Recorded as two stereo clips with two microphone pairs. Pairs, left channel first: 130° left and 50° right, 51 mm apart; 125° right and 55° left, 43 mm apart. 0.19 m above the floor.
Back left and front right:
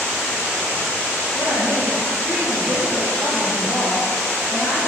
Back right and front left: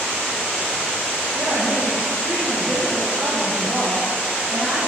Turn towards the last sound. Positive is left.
turn(degrees=95)